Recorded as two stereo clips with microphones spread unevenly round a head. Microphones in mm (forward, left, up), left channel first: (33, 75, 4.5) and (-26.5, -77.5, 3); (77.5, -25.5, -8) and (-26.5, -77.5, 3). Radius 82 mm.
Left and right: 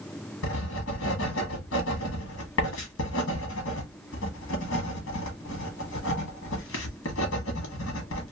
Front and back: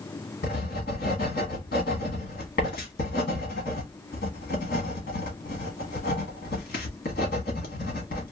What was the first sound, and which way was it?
Writing, 60° left.